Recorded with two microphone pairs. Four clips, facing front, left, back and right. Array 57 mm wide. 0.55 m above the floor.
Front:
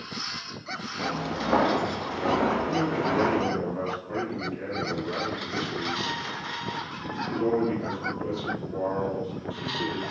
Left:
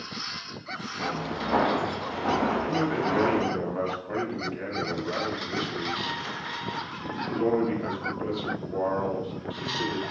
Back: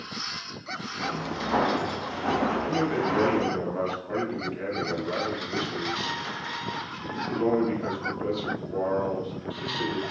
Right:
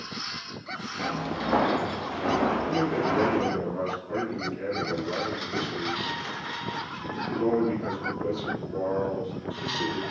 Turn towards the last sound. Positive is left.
turn(degrees=125)